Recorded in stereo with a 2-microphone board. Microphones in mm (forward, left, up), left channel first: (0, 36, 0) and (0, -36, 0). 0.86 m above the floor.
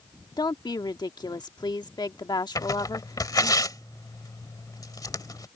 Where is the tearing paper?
60° left (ahead or behind).